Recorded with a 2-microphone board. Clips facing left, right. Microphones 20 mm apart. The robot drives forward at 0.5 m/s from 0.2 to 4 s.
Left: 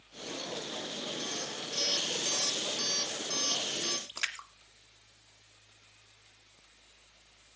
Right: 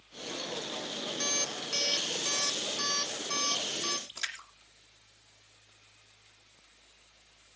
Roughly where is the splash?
Left.